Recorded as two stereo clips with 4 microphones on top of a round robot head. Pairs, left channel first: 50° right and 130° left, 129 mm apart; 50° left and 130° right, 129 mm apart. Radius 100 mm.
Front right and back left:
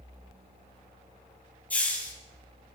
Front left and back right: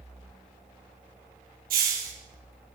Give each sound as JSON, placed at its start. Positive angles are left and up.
{"t": 1.7, "sound": "a hiss", "azimuth_deg": -130, "distance_m": 4.5}